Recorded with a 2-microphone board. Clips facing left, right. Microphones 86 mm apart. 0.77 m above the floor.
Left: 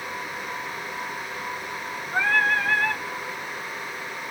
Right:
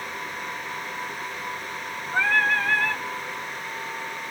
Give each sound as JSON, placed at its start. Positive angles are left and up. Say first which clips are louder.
{"t": 2.1, "sound": "singing", "louder": "even", "side_deg": 15, "distance_m": 1.3}